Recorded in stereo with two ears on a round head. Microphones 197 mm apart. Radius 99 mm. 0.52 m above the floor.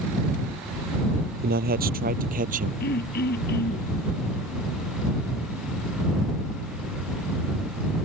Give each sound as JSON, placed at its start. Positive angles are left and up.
{"t": 1.4, "sound": "a man speaking", "side_deg": -45}
{"t": 2.8, "sound": "throat clearing", "side_deg": 50}